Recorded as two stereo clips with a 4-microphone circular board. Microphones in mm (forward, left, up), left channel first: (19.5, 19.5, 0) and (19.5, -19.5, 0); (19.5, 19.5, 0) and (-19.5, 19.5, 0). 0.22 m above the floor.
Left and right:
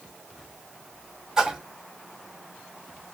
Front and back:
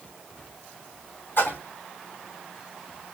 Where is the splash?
15° right, 1.3 m.